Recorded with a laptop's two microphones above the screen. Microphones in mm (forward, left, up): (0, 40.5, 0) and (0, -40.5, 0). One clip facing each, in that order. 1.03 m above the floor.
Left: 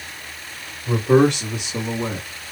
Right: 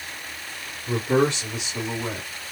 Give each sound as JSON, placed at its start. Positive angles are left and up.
{"t": 0.9, "sound": "a man speaking", "side_deg": 75, "distance_m": 2.5}